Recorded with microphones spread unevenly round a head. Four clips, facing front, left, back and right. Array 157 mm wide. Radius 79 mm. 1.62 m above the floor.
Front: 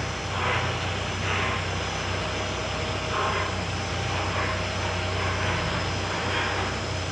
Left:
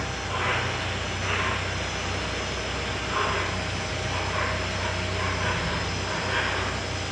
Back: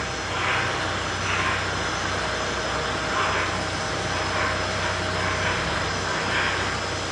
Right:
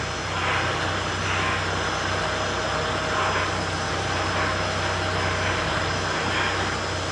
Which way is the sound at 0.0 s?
45° left.